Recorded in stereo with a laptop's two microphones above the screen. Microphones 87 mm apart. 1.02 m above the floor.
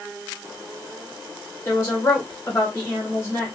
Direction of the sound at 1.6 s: 25° left (ahead or behind).